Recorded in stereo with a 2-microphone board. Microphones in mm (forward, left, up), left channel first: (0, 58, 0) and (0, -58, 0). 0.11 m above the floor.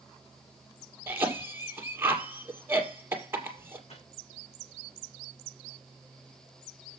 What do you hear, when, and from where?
1.1 s a cough: 20° right (ahead or behind), 2.5 m
3.9 s a microwave: 70° left (ahead or behind), 5 m